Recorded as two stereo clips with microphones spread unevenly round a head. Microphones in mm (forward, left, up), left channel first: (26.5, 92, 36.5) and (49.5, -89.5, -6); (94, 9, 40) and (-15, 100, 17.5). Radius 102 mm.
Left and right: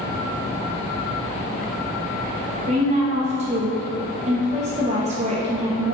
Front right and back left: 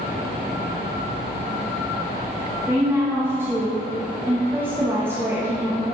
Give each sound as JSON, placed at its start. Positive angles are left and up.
{"t": 2.7, "sound": "a woman speaking", "azimuth_deg": -140, "distance_m": 1.0}